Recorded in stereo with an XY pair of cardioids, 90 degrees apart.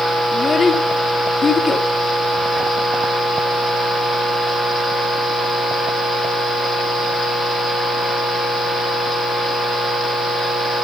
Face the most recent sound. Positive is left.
turn(degrees=45)